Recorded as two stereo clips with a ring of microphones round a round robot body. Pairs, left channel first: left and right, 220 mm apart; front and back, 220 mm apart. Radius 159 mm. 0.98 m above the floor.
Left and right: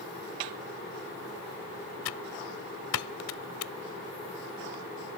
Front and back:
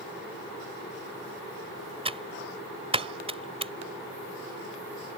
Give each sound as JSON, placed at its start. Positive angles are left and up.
{"t": 2.0, "sound": "typing on a keyboard", "azimuth_deg": 115}